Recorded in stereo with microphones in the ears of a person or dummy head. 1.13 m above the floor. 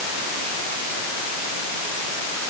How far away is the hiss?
No hiss in this recording.